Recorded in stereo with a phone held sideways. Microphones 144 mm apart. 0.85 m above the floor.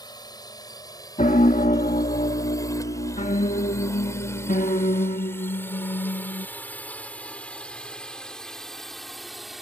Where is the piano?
60° left (ahead or behind).